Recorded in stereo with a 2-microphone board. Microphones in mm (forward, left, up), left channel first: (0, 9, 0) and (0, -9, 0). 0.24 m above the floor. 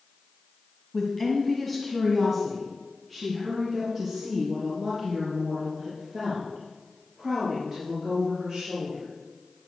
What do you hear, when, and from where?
0.9 s a woman speaking: 10° left (ahead or behind), 1.7 m; by 9.1 s 35° right (ahead or behind), 6 m